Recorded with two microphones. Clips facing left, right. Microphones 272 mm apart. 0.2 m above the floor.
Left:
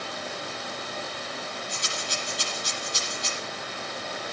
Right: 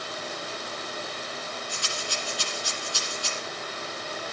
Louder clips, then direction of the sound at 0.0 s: Left 1 dB; 65° left (ahead or behind).